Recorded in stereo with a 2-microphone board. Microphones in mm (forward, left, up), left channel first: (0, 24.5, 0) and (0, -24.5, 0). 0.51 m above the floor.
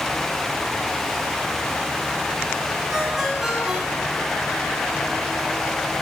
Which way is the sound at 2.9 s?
10° right (ahead or behind).